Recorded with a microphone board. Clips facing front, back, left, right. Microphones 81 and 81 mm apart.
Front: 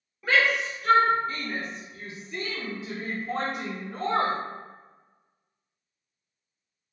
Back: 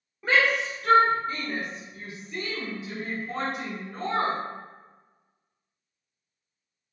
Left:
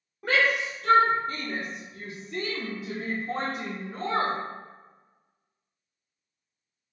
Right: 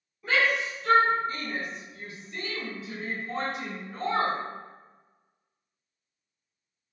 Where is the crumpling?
No crumpling in this recording.